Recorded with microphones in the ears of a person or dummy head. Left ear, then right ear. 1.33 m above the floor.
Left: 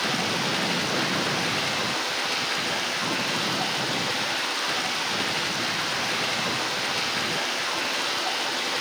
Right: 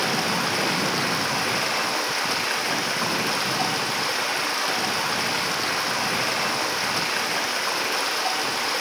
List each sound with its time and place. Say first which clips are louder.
0.0 s running water: right 2 dB; 35° right (ahead or behind), 4 m